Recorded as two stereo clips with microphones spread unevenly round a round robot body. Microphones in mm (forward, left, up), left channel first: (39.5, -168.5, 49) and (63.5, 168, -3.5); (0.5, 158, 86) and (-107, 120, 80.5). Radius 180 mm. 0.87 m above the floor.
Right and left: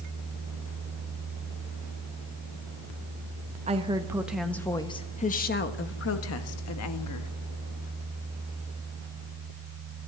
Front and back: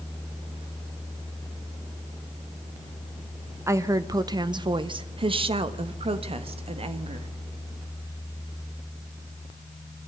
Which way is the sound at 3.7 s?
145° left.